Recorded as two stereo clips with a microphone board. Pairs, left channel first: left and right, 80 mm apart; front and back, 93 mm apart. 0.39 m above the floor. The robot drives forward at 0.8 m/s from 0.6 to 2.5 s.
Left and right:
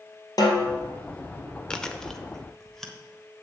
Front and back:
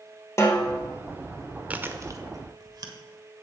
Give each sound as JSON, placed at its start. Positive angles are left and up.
{"t": 0.4, "sound": "a snare drum", "azimuth_deg": 55, "distance_m": 1.9}
{"t": 1.7, "sound": "chewing", "azimuth_deg": 150, "distance_m": 0.7}